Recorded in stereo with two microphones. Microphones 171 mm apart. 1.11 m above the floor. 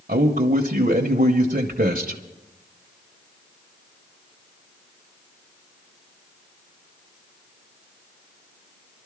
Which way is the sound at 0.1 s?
55° right (ahead or behind).